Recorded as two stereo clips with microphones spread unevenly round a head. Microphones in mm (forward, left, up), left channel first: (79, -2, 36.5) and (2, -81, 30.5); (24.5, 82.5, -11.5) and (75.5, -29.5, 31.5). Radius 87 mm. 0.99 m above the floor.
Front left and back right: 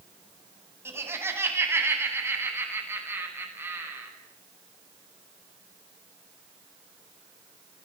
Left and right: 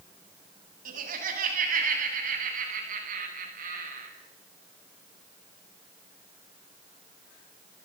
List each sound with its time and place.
0.8 s laughter: 65° right, 9 m